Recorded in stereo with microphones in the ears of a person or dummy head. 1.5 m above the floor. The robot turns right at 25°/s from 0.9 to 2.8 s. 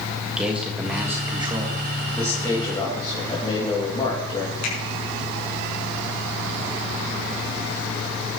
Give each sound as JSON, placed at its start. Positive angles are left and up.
{"t": 0.2, "sound": "a man speaking", "side_deg": -5, "distance_m": 1.7}
{"t": 2.2, "sound": "a man speaking", "side_deg": 10, "distance_m": 2.5}
{"t": 4.6, "sound": "a finger snap", "side_deg": 80, "distance_m": 5.5}